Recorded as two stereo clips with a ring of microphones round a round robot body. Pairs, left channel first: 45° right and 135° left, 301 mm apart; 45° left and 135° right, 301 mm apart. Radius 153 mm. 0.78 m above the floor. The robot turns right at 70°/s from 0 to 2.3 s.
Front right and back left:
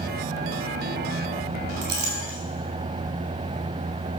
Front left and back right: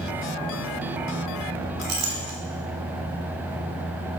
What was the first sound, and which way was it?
A clink, 175° right.